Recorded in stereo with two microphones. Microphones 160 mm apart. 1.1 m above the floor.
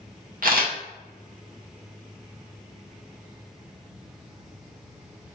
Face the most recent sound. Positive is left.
turn(degrees=-65)  # may be behind; listen again after turning